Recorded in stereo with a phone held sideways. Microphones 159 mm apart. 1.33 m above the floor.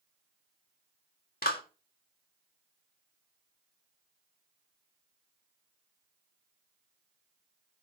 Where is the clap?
75° left (ahead or behind), 1.7 m.